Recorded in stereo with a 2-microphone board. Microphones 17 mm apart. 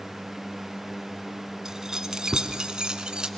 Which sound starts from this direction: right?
Keys jangling, at 1.6 s.